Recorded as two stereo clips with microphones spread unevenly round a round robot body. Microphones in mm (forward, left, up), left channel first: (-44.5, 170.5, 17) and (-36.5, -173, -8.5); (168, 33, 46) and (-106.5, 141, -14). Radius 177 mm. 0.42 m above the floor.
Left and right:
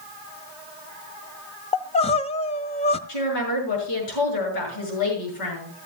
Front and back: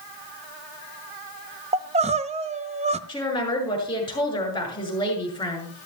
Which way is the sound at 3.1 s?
55° left.